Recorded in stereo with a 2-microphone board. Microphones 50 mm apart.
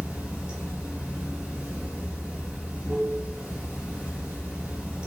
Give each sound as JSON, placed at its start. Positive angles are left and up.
{"t": 0.0, "sound": "running water", "side_deg": -20, "distance_m": 0.9}